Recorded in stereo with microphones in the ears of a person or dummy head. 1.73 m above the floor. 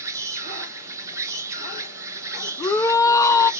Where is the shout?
15° left (ahead or behind), 0.6 m.